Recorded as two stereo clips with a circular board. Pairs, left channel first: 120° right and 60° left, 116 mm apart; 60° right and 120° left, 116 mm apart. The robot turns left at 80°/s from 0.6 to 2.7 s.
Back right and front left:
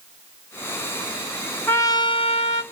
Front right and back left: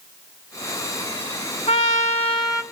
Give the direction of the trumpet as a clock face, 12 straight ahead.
2 o'clock.